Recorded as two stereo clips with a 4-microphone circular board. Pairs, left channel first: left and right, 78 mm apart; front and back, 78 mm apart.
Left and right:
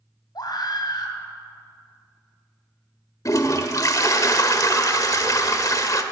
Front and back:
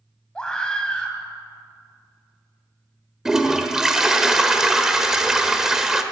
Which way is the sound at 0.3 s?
80° left.